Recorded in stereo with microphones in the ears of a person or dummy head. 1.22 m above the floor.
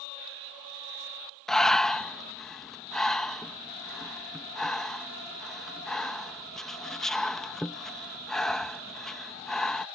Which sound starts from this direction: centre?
Breathing, at 1.5 s.